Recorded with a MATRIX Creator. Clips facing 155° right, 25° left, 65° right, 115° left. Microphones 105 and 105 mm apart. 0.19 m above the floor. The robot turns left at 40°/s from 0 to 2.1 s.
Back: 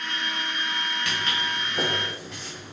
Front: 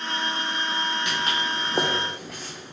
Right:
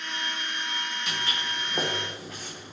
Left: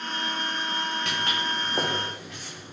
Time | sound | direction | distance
1.1 | footsteps | 90° left | 0.8 m